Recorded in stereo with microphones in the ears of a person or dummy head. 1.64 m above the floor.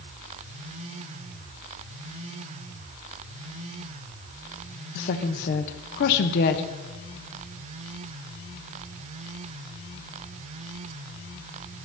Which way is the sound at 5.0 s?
65° left (ahead or behind).